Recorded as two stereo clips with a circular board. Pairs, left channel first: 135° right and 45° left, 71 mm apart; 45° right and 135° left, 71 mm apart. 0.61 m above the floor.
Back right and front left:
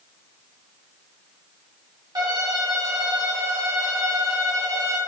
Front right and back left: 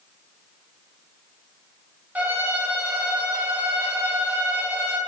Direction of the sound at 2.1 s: 70° left.